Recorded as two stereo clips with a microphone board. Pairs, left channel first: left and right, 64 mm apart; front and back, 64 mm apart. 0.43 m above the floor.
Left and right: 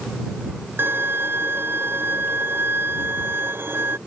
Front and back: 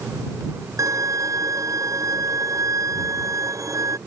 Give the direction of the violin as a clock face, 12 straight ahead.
5 o'clock.